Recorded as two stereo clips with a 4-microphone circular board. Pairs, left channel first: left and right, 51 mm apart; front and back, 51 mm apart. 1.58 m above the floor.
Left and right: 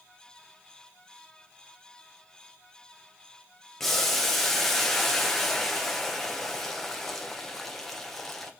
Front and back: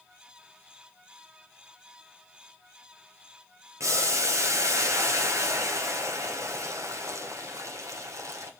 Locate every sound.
3.8 s boiling: 175° left, 1.1 m